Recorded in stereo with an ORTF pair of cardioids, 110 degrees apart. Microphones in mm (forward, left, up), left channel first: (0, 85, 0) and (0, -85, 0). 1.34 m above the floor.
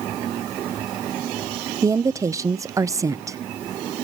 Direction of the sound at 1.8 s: 20° right.